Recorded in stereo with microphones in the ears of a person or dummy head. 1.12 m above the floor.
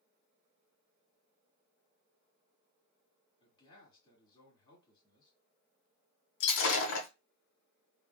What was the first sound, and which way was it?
A man speaking, 25° left (ahead or behind).